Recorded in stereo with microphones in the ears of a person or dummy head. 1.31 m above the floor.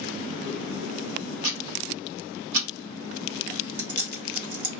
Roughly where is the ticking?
Right.